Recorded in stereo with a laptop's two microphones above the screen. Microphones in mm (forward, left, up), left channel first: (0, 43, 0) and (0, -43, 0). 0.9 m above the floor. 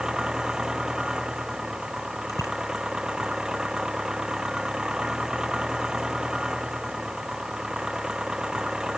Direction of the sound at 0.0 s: 10° right (ahead or behind).